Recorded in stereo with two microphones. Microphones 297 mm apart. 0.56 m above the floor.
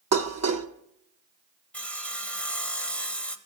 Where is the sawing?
5° left (ahead or behind), 0.8 m.